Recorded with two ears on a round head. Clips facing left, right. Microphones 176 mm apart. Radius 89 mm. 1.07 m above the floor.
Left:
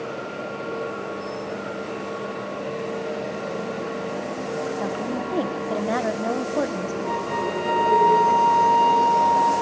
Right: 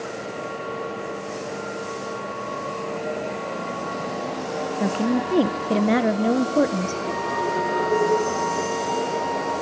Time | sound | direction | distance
4.8 | a woman speaking | 30° right (ahead or behind) | 0.6 m
7.0 | a flute | 45° left (ahead or behind) | 3.5 m